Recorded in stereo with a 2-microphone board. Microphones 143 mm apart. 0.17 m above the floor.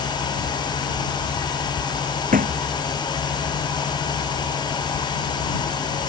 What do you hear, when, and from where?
2.3 s a thud: 75° right (ahead or behind)